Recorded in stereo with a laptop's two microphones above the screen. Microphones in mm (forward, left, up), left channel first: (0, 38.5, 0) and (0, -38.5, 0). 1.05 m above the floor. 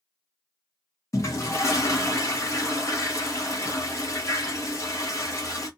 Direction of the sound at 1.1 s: 40° left (ahead or behind).